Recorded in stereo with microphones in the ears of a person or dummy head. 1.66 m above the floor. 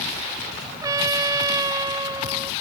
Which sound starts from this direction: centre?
A trumpet, at 0.8 s.